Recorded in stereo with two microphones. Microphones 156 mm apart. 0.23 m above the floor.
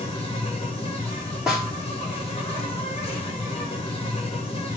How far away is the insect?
About 6.5 m.